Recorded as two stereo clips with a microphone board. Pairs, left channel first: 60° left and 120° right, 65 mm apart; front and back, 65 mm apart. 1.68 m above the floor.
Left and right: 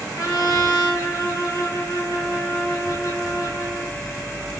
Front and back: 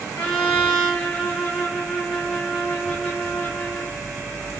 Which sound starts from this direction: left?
A trumpet, at 0.1 s.